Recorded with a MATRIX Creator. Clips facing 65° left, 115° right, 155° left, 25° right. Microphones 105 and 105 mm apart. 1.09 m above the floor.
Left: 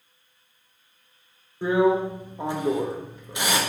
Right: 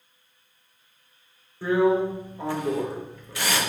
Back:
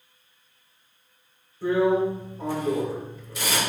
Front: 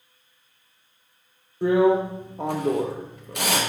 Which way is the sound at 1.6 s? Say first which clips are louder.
Even, front 3 dB; straight ahead.